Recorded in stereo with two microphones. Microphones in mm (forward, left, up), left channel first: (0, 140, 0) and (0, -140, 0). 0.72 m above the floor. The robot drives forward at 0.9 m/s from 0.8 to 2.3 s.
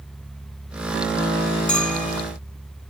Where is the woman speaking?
I don't hear a woman speaking.